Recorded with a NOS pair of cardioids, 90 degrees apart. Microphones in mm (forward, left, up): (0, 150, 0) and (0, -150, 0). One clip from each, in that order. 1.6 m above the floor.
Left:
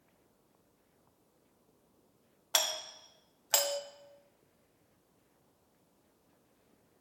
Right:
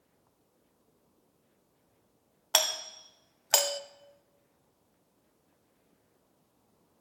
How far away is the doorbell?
About 0.5 m.